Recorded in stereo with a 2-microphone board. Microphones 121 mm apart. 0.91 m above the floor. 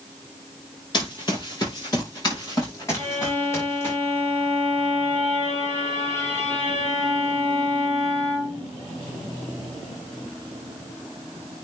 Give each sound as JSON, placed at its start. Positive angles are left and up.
{"t": 0.9, "sound": "running footsteps", "side_deg": 35, "distance_m": 5.5}
{"t": 3.0, "sound": "a violin", "side_deg": 20, "distance_m": 4.0}